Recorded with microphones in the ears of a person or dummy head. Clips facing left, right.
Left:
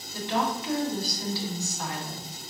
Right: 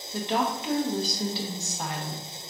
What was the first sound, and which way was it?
A woman speaking, 20° right (ahead or behind).